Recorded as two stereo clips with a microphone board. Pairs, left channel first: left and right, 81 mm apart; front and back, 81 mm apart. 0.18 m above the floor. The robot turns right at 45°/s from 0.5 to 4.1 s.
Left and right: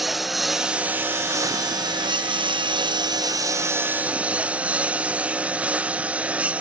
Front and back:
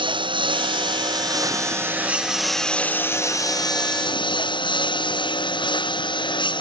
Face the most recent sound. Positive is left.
turn(degrees=-15)